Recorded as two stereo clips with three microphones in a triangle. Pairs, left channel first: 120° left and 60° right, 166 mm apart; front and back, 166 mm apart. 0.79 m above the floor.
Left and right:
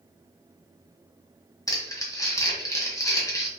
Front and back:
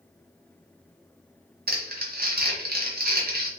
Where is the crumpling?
170° right, 1.2 m.